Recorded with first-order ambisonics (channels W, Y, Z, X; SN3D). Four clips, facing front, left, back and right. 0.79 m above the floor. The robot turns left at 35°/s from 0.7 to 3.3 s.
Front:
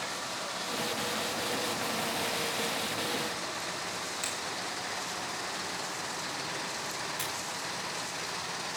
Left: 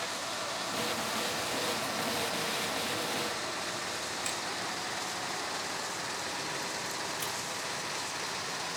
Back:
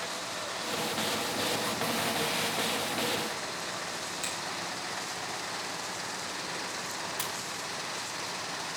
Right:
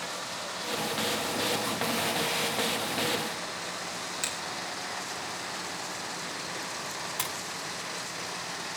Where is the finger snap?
90° right, 9.5 m.